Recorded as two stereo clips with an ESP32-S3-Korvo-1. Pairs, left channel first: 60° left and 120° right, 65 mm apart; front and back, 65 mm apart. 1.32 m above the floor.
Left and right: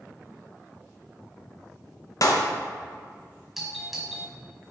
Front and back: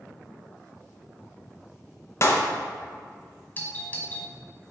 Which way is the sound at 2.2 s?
40° left.